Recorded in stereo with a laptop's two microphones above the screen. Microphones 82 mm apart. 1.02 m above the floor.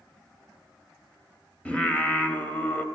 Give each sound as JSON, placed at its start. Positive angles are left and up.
{"t": 1.6, "sound": "singing", "side_deg": 15, "distance_m": 0.9}